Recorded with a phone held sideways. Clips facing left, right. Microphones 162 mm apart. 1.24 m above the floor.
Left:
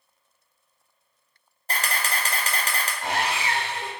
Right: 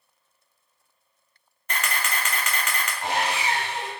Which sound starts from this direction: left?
A camera shutter, at 1.7 s.